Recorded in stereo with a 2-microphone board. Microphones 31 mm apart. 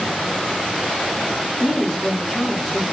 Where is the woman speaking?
15° right (ahead or behind), 1.4 m.